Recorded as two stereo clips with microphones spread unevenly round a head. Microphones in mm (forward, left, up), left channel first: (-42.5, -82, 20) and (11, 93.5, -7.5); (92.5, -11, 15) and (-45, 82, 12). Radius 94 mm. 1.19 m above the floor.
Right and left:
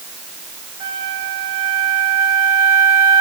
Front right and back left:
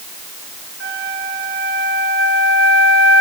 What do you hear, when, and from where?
0.8 s a flute: 135° left, 3.5 m